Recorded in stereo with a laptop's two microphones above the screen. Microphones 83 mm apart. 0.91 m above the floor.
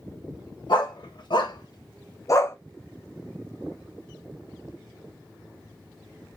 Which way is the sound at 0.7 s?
65° left (ahead or behind).